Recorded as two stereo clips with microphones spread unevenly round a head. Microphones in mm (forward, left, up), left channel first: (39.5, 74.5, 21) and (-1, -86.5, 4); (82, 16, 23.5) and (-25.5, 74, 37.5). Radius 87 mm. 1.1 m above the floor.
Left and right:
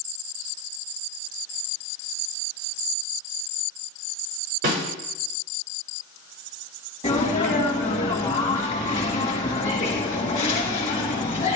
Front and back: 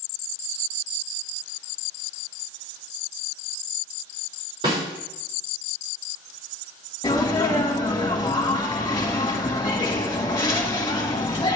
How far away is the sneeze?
About 1.4 m.